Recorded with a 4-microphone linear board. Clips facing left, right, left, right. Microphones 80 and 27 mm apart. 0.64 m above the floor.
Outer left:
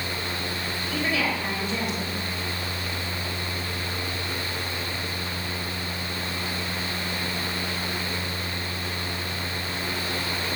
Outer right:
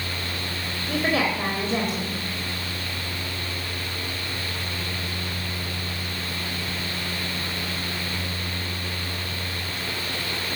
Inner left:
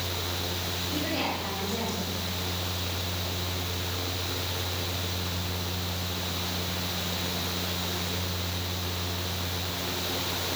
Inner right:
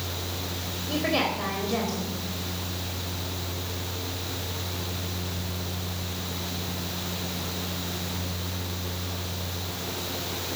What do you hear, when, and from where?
0.9 s a woman speaking: 45° right (ahead or behind), 3.5 m